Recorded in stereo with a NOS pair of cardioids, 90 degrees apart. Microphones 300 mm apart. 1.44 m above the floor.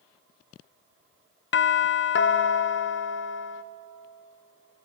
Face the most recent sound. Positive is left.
turn(degrees=40)